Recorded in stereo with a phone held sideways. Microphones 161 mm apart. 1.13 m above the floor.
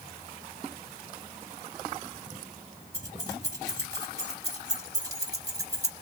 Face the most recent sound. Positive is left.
turn(degrees=-20)  # may be behind; listen again after turning